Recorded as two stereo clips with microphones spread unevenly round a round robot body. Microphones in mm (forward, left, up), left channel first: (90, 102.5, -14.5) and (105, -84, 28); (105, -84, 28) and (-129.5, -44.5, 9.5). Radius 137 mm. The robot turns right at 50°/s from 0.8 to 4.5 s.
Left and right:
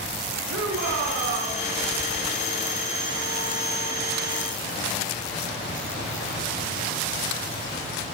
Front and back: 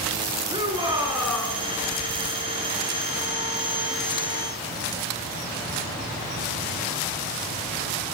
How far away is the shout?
About 5.5 m.